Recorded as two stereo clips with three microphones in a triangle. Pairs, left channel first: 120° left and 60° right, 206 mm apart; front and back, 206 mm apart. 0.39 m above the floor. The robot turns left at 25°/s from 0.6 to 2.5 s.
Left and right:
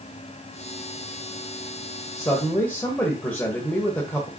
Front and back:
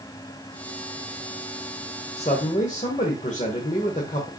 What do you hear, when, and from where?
2.2 s a man speaking: 50° left, 1.2 m; by 4.3 s 40° left, 1.2 m